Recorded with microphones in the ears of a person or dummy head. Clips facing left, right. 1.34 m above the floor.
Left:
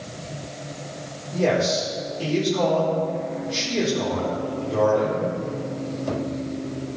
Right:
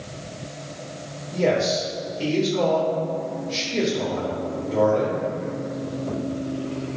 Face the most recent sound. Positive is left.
turn(degrees=-5)  # may be behind; listen again after turning